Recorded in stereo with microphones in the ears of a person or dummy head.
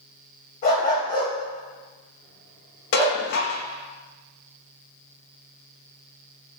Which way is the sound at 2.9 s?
65° left (ahead or behind).